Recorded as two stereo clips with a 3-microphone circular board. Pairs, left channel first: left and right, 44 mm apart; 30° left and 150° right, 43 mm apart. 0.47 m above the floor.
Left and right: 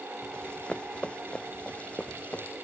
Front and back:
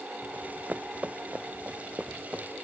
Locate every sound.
0.3 s running footsteps: 155° left; by 2.5 s 150° left